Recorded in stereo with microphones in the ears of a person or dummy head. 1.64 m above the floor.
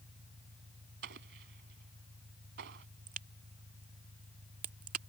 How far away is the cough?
I don't hear a cough.